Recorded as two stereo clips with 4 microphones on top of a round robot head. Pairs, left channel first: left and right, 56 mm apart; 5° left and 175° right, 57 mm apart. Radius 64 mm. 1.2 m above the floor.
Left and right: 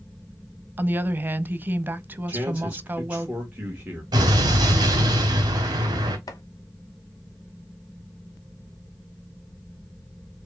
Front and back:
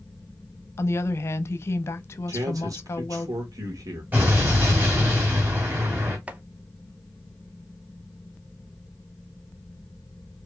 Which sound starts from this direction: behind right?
A man speaking, at 2.3 s.